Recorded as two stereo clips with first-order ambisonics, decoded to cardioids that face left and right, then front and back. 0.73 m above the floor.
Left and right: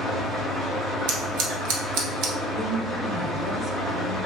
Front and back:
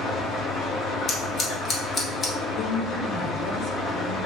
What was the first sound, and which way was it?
An engine running, 45° right.